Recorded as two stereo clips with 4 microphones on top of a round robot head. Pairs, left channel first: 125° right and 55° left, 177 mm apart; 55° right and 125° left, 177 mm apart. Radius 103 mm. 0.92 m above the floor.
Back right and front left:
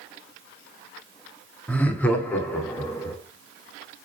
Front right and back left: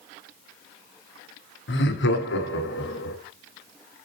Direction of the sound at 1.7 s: 45° right.